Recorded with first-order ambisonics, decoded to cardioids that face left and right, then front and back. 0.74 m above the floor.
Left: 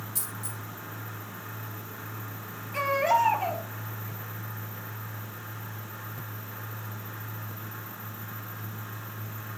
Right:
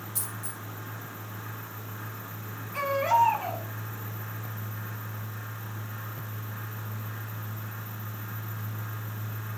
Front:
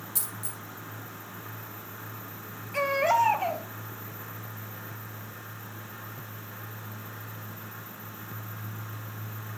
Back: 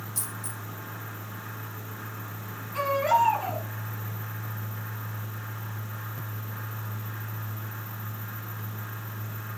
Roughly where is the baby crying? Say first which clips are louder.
Even, back 1 dB; ahead.